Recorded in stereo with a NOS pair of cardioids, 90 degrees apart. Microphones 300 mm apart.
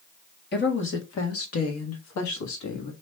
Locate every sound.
0.5 s a woman speaking: 35° left, 1.8 m; by 2.9 s 80° left, 1.7 m